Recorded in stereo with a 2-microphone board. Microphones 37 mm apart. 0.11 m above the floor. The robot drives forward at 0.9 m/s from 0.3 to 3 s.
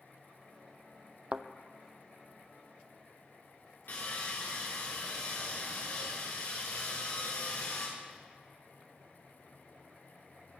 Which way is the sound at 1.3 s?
35° right (ahead or behind).